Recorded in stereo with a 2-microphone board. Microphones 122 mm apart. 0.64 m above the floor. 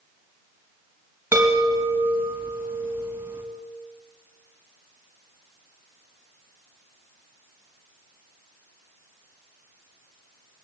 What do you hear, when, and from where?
1.3 s a chime: 20° right (ahead or behind), 4 m